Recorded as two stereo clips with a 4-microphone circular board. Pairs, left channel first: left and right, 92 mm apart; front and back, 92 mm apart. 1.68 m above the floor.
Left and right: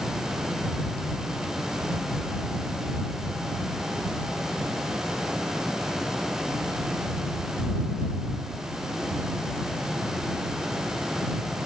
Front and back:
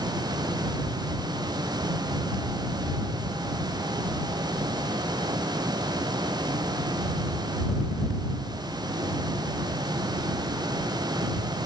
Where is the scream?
I don't hear a scream.